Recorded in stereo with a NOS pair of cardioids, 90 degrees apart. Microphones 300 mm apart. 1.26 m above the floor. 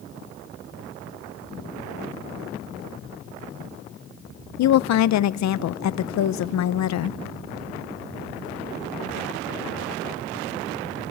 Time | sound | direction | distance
4.6 | a woman speaking | 65° left | 0.8 m